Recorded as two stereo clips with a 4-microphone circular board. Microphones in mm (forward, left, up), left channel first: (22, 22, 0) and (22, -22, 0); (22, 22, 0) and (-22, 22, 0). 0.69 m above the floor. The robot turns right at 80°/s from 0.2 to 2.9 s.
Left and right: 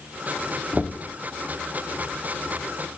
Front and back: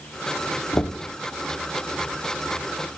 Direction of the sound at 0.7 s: 10° right.